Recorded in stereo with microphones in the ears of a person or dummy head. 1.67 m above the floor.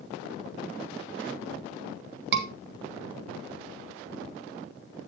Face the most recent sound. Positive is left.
turn(degrees=-70)  # may be behind; listen again after turning